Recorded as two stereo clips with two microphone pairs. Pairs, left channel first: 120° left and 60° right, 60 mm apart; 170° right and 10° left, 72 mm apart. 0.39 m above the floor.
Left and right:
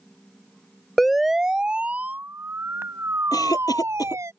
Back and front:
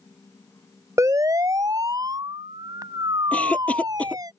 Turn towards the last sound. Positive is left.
turn(degrees=115)